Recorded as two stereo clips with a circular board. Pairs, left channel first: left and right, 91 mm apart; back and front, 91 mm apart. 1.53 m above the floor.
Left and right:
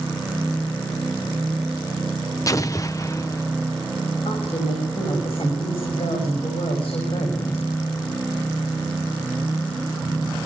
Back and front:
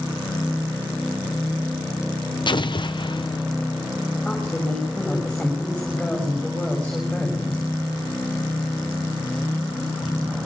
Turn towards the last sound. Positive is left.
turn(degrees=95)